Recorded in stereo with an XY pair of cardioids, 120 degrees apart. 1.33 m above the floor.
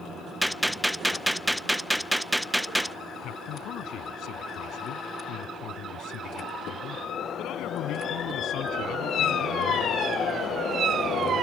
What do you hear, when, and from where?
0.4 s a gunshot: 5° right
3.2 s a man speaking: 65° left